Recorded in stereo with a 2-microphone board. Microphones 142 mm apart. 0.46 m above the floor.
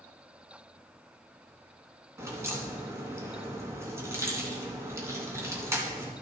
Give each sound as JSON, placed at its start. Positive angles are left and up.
{"t": 2.2, "sound": "a crack", "side_deg": -20, "distance_m": 2.5}